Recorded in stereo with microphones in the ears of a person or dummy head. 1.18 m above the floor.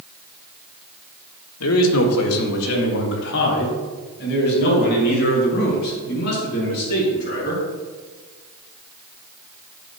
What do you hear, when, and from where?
1.6 s a man speaking: 80° left, 1.4 m; by 7.6 s 50° left (ahead or behind), 7 m